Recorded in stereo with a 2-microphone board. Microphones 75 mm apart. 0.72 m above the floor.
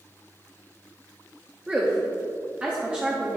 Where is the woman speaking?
15° right (ahead or behind), 0.8 m.